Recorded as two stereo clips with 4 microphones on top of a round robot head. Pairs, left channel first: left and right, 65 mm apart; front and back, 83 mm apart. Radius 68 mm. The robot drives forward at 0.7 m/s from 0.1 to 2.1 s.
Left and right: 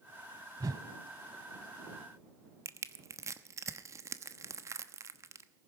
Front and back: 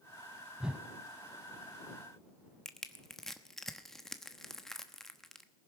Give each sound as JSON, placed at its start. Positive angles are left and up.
{"t": 0.6, "sound": "a whoosh", "azimuth_deg": -95, "distance_m": 0.8}
{"t": 2.6, "sound": "crushing", "azimuth_deg": -85, "distance_m": 1.1}